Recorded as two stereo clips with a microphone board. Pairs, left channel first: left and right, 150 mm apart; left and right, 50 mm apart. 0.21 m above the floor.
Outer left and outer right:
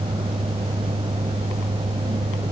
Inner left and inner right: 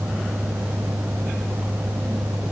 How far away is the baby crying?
I don't hear a baby crying.